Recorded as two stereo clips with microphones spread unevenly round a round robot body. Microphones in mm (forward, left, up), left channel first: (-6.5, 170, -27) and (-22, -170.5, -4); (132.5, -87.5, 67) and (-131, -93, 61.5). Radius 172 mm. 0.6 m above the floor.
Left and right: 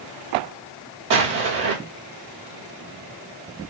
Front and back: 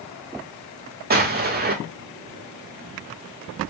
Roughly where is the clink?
I don't hear a clink.